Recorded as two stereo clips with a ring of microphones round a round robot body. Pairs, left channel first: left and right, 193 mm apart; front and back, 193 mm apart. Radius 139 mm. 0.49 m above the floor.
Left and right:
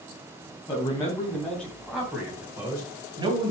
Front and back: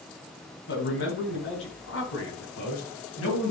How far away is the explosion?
No explosion in this recording.